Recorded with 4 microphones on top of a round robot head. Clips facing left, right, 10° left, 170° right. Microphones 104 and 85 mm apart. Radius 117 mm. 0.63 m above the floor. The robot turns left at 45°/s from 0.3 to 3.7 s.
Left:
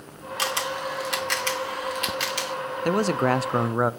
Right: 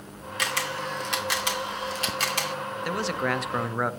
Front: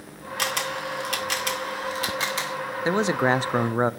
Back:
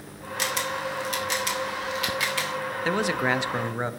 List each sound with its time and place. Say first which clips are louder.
0.4 s a camera shutter: left 2 dB, even; 35° left, 2 m; by 2.5 s 60° right, 2 m
2.9 s a man speaking: left 7 dB, front 4 dB; 75° left, 0.7 m; by 3.9 s 35° left, 0.7 m